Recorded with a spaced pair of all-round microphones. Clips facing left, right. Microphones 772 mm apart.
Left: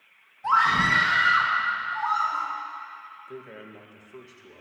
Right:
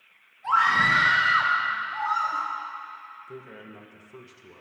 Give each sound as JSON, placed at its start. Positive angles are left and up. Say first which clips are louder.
{"t": 0.4, "sound": "a scream", "louder": "left 2 dB", "side_deg": 70, "distance_m": 2.0}
{"t": 3.3, "sound": "a man speaking", "louder": "left 1 dB", "side_deg": -40, "distance_m": 1.8}